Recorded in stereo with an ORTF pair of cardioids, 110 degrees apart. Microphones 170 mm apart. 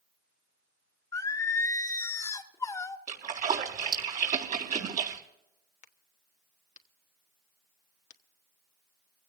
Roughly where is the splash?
Ahead right.